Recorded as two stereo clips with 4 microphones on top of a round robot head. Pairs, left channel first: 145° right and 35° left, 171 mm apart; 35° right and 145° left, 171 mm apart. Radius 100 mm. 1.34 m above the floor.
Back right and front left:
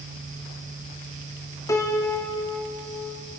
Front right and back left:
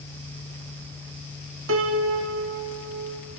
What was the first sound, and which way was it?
A piano, 145° left.